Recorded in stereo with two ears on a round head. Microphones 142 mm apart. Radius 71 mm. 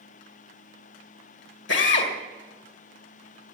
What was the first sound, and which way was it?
A drill, 80° left.